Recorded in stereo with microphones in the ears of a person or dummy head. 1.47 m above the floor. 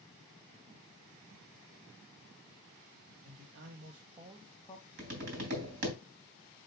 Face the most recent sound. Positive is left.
turn(degrees=-50)  # may be behind; listen again after turning